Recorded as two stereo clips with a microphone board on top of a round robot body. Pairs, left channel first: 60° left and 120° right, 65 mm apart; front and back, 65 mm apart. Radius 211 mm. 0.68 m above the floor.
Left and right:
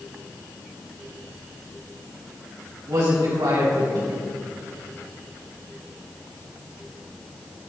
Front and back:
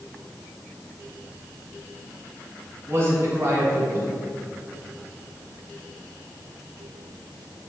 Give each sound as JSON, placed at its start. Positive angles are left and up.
{"t": 2.9, "sound": "a man speaking", "azimuth_deg": -140, "distance_m": 5.0}